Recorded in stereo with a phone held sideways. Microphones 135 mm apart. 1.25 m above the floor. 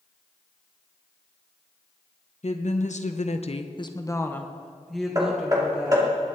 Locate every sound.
2.4 s a woman speaking: 60° left (ahead or behind), 1.3 m; by 6.1 s 10° right (ahead or behind), 2.5 m
5.2 s hammering: 30° right (ahead or behind), 2.5 m